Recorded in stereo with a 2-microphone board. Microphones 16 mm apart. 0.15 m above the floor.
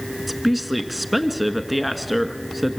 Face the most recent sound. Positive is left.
turn(degrees=-10)  # may be behind; listen again after turning